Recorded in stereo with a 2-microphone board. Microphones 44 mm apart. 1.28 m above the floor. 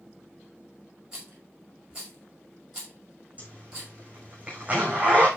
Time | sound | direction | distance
1.1 | a rattle | 10° right (ahead or behind) | 6 m
3.4 | a zipper | 30° right (ahead or behind) | 6 m